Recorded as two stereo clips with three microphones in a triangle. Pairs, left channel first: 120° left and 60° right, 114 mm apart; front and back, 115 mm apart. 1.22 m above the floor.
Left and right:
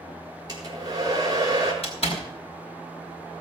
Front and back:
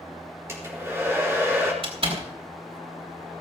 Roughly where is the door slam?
Behind left.